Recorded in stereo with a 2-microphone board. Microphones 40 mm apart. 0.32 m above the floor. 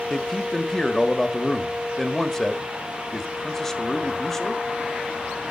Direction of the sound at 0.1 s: 10° left (ahead or behind).